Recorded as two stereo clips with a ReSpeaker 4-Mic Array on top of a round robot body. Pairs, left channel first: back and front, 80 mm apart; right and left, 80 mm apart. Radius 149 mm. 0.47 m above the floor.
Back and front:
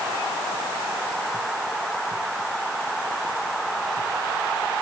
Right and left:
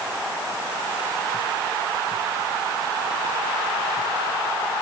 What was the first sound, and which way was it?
Only background noise.